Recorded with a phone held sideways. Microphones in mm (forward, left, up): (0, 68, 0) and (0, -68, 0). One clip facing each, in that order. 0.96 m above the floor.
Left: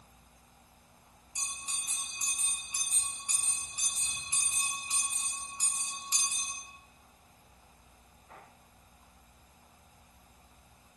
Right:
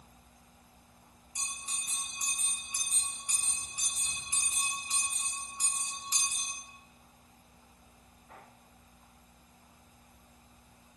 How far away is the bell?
About 1.3 m.